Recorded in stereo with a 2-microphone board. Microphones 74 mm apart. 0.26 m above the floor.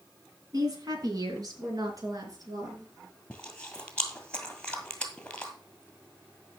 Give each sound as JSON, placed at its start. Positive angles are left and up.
{"t": 0.5, "sound": "a woman speaking", "side_deg": -55, "distance_m": 2.5}
{"t": 3.3, "sound": "chewing", "side_deg": 10, "distance_m": 1.9}